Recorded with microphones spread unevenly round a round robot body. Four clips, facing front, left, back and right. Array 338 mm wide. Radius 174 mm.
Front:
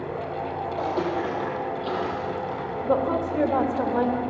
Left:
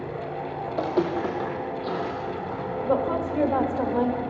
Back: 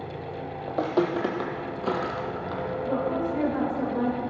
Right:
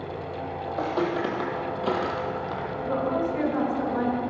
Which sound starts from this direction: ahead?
A woman speaking, at 2.8 s.